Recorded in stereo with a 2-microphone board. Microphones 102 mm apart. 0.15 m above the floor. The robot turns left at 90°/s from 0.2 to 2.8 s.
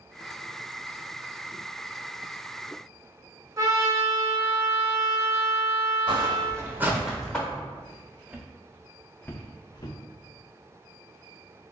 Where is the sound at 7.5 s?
40° right (ahead or behind), 1.0 m; by 10.0 s 45° left (ahead or behind), 0.8 m.